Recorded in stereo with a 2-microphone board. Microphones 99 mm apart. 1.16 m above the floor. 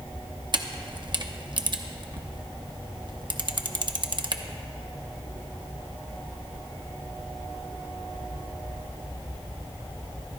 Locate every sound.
0.5 s a camera shutter: 50° right (ahead or behind), 0.8 m